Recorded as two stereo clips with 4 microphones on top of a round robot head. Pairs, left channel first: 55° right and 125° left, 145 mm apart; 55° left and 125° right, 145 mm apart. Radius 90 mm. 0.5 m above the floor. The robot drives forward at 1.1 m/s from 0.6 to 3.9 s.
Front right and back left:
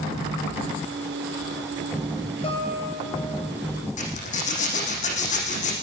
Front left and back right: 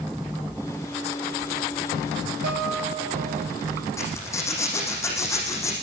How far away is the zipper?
About 8 m.